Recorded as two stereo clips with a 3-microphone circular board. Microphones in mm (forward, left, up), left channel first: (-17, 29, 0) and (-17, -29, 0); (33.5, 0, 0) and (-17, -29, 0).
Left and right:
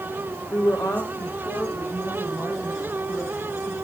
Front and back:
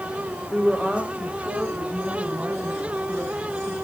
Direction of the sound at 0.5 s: 125° left.